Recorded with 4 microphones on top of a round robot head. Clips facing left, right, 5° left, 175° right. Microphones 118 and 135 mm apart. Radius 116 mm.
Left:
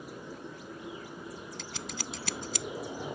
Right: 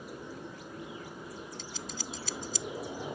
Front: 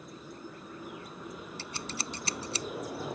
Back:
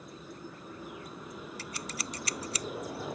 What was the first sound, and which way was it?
Scissors, 70° left.